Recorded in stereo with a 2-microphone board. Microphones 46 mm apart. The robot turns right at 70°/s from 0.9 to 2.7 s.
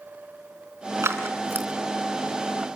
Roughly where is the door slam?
No door slam in this recording.